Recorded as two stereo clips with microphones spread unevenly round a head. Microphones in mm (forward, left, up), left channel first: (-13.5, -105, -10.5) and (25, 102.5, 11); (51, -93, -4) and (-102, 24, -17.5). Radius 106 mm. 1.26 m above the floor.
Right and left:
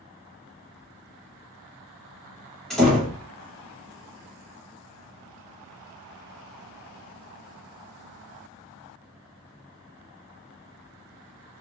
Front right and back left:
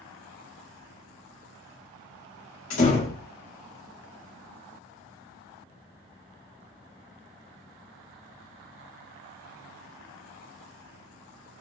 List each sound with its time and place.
2.7 s a door slam: 10° right, 2.5 m